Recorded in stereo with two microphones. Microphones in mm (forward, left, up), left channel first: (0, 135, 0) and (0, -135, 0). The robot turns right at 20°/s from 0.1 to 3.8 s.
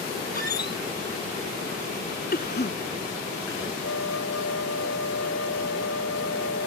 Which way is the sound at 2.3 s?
35° left (ahead or behind).